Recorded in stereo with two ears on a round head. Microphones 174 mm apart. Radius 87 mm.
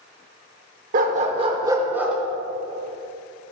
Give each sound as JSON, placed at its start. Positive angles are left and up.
{"t": 0.9, "sound": "a dog barking", "side_deg": -45, "distance_m": 0.7}